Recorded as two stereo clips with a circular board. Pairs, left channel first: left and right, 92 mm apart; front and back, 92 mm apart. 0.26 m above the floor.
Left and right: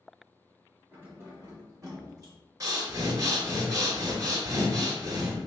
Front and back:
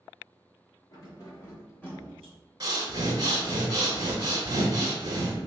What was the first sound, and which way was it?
Keys jangling, 25° right.